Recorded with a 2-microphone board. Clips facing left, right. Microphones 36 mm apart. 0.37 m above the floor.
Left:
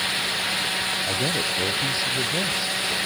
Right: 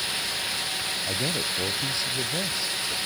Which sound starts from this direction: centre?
A man speaking, at 1.1 s.